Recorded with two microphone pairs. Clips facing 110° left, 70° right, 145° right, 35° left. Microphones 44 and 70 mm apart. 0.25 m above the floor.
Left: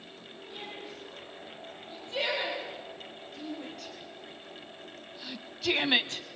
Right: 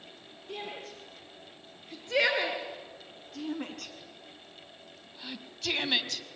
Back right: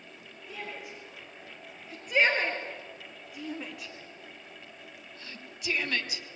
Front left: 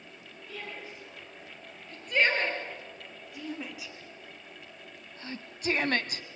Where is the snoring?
I don't hear snoring.